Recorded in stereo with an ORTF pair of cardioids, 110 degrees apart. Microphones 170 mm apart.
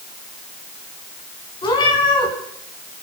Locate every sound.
1.6 s a cat meowing: 25° left, 4.5 m